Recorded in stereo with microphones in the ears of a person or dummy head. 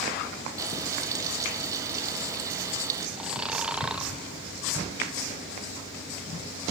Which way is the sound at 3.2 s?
5° right (ahead or behind).